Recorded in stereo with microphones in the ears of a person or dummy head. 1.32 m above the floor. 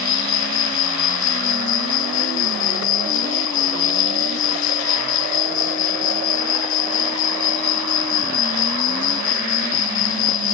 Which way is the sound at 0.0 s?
65° left (ahead or behind).